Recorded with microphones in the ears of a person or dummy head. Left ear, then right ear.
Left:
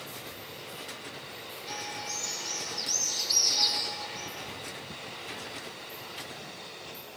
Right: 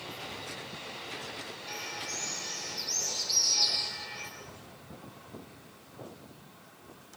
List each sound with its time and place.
1.7 s a bird: 25° right (ahead or behind), 9 m